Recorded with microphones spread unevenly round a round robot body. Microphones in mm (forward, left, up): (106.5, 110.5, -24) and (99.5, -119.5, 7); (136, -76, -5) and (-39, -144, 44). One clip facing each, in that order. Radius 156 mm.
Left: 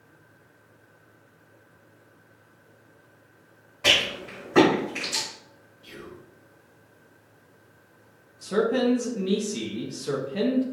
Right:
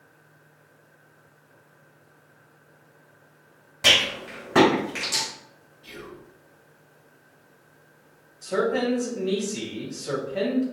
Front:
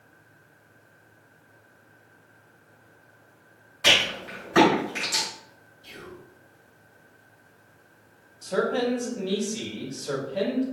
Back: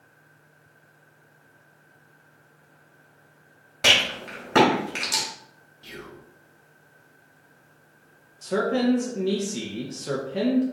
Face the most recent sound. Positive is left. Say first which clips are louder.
# left 2 dB, back 2 dB
turn(degrees=140)